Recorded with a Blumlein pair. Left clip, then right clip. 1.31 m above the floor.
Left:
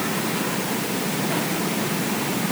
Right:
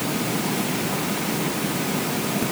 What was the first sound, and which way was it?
Only background noise.